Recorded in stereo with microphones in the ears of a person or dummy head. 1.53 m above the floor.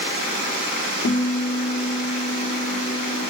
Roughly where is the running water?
Right.